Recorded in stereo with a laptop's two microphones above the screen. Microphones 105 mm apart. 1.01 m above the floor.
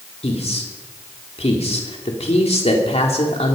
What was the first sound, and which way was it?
A man speaking, 80° left.